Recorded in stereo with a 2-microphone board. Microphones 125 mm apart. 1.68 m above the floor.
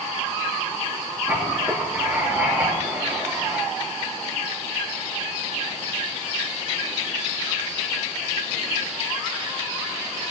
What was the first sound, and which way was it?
Writing, 15° right (ahead or behind).